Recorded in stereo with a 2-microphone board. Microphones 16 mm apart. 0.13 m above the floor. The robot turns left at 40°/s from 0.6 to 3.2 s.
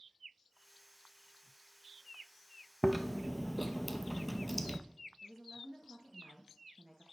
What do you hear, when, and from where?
2.8 s chewing: 5° right (ahead or behind), 0.6 m; by 4.8 s 10° left (ahead or behind), 0.6 m
5.2 s a woman speaking: 10° right (ahead or behind), 1.9 m